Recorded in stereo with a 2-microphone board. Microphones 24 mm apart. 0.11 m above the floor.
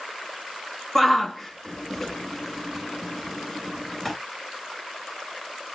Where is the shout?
10° left (ahead or behind), 1.1 m.